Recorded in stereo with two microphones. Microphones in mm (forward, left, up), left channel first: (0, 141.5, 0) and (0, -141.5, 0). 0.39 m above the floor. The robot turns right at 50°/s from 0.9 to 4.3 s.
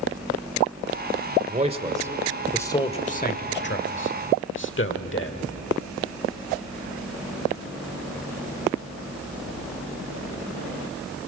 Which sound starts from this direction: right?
A man speaking, at 1.5 s.